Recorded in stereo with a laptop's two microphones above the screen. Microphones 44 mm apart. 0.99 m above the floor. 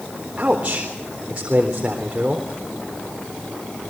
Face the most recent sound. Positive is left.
turn(degrees=-30)  # may be behind; listen again after turning